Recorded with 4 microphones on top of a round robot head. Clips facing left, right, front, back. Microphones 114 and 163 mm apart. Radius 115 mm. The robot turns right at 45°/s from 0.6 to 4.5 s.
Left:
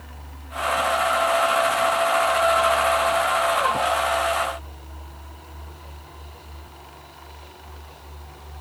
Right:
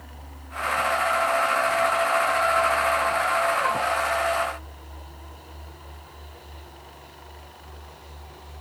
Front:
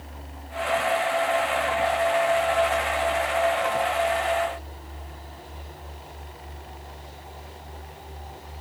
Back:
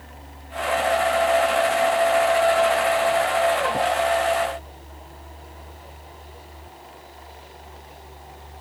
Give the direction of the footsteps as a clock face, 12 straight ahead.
No footsteps in this recording.